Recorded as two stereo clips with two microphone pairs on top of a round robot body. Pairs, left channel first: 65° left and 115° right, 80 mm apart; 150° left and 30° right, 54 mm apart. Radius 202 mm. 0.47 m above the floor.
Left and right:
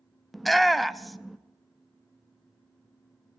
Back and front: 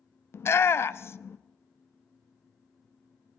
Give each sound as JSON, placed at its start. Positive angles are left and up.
{"t": 0.3, "sound": "a shout", "azimuth_deg": 150, "distance_m": 0.7}